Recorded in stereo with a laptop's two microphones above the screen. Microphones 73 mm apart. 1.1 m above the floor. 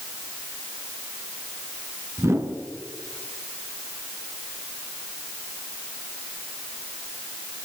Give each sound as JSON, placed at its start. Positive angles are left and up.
{"t": 2.2, "sound": "a whoosh", "side_deg": -40, "distance_m": 2.5}